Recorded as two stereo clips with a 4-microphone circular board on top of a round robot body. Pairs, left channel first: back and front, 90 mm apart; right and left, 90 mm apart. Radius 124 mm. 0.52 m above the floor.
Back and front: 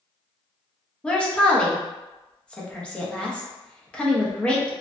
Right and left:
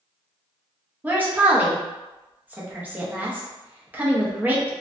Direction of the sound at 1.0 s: 125° left.